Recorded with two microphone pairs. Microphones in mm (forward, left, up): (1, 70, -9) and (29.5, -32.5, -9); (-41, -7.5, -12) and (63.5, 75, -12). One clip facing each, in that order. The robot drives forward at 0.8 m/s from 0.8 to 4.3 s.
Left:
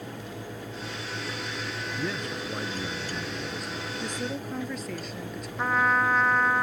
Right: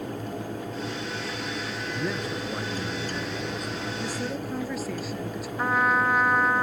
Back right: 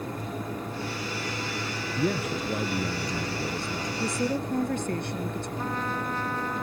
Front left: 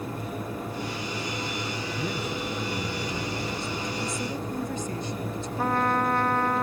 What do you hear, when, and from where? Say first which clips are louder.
2.0 s a man speaking: right 3 dB, back right 6 dB; 155° right; by 3.9 s 165° right
4.0 s a woman speaking: even, back right 3 dB; 160° right
5.6 s a trumpet: right 1 dB, front left 9 dB; 10° left